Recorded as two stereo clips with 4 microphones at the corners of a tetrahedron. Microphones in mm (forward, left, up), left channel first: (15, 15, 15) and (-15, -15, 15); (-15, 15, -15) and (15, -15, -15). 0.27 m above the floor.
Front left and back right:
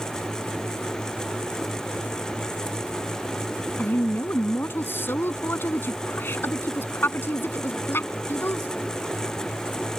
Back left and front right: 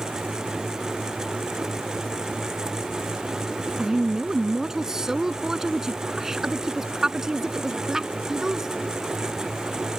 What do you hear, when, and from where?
3.8 s a woman speaking: 30° left